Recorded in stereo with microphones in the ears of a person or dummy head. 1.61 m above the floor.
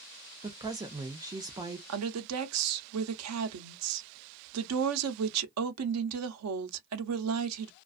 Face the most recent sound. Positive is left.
turn(degrees=-85)